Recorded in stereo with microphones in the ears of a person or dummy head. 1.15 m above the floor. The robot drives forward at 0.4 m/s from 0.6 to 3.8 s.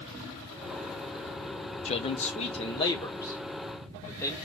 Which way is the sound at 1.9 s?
30° left (ahead or behind).